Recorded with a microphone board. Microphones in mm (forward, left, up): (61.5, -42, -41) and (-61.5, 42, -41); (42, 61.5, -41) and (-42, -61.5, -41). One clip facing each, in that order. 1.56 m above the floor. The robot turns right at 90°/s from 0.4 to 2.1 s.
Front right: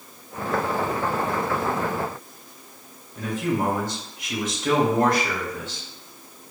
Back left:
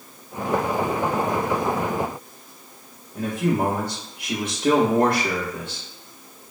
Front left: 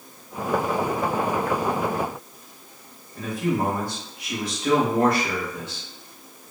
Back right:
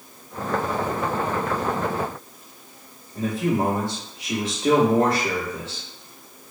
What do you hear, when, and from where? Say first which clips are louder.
3.1 s a man speaking: back left 2 dB, back right 2 dB; 175° left, 0.8 m